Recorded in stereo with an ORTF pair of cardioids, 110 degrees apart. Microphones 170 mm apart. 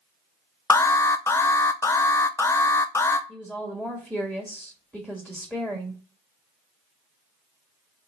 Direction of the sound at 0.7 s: 15° left.